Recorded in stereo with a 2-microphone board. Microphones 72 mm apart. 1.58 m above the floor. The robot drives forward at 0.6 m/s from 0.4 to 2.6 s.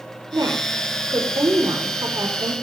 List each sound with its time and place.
0.3 s a woman speaking: 60° right (ahead or behind), 5 m; by 2.5 s 75° right (ahead or behind), 4.5 m